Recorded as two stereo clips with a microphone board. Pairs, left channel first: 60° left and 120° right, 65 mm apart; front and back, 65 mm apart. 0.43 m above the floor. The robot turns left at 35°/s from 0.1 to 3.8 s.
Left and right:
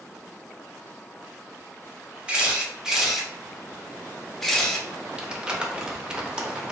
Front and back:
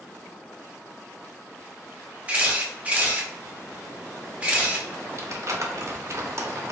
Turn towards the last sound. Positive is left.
turn(degrees=170)